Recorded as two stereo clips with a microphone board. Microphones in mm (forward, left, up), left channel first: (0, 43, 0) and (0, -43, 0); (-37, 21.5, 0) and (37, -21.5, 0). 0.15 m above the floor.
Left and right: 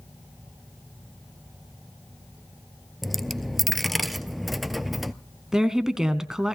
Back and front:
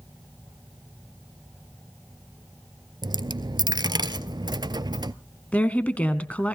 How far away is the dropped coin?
About 0.6 m.